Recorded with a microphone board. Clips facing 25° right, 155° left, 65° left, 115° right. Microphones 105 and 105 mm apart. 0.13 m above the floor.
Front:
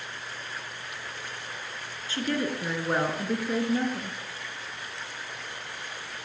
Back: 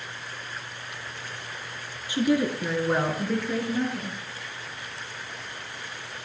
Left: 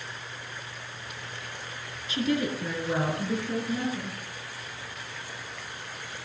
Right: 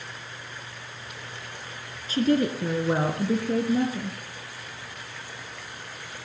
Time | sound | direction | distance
2.1 | a woman speaking | 140° right | 2 m